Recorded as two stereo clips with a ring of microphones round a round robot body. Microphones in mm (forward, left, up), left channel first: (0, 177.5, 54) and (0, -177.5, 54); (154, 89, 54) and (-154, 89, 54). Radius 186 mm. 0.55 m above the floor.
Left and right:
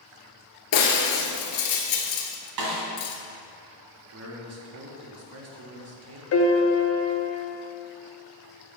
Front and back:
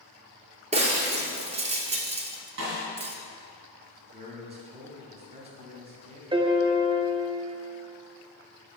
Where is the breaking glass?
115° left, 0.8 m.